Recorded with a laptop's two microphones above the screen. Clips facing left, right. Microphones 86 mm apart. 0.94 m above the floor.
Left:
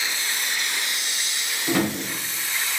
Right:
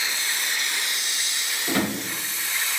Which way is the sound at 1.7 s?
10° left (ahead or behind).